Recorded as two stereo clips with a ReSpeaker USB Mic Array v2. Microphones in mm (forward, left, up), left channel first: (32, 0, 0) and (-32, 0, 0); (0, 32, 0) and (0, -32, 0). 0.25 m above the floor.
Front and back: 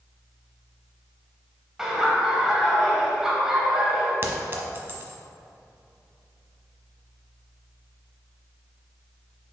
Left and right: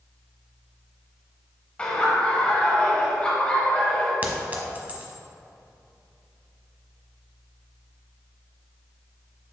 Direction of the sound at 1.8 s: 115° left.